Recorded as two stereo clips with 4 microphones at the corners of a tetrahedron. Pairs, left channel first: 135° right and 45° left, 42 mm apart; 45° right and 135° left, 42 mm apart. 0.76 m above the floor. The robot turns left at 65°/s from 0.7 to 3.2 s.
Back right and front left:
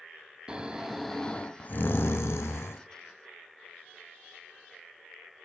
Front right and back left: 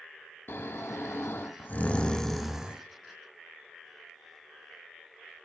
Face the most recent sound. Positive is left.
turn(degrees=175)